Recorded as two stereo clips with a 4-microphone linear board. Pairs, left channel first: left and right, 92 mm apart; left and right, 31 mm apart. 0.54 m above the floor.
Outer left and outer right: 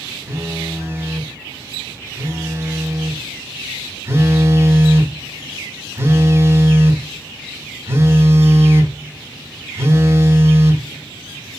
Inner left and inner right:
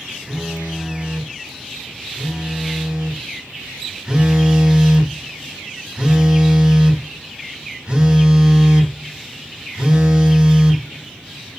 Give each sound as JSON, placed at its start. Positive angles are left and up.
{"t": 0.3, "sound": "a phone buzzing", "side_deg": -25, "distance_m": 0.6}